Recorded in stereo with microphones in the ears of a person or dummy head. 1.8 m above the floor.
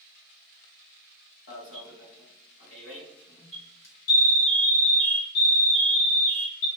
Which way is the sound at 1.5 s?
80° left.